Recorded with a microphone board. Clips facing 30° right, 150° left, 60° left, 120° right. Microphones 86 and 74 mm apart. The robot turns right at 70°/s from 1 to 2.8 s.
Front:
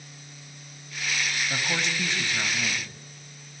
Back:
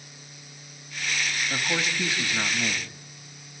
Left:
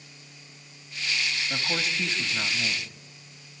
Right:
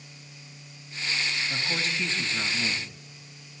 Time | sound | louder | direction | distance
1.5 | a man speaking | back 2 dB, left 1 dB | 50° left | 1.1 m